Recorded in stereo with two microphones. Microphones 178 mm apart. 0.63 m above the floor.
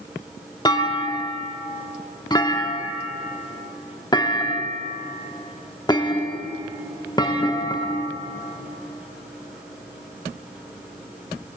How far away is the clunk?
About 0.8 m.